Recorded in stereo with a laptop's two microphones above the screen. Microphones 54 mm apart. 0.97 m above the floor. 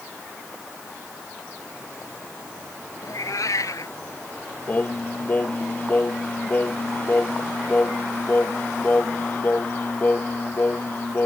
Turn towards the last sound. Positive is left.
turn(degrees=35)  # may be behind; listen again after turning